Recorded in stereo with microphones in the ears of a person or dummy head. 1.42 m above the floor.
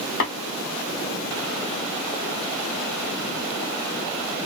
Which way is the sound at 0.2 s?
55° left (ahead or behind).